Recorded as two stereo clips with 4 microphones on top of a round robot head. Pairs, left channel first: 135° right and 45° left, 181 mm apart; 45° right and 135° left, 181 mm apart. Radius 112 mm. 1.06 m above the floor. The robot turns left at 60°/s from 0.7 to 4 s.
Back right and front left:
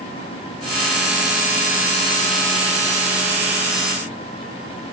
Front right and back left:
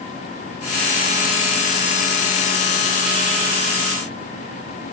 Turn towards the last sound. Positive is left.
No sound to turn to.